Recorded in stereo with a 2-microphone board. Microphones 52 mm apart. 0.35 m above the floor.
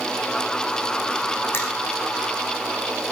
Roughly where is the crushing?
Left.